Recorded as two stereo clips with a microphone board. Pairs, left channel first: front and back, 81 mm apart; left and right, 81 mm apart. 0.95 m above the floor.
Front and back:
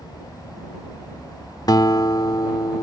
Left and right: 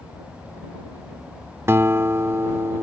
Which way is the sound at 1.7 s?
35° right.